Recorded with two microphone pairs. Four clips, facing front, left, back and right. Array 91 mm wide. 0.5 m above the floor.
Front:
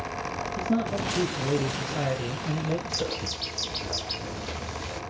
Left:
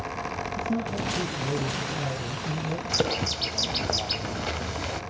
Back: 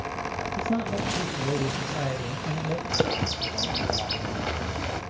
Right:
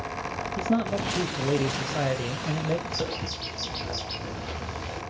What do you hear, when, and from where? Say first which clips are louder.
0.6 s a man speaking: right 5 dB, front 1 dB; 95° right, 2.0 m
2.9 s a bird: left 4 dB, back 5 dB; 145° left, 1.9 m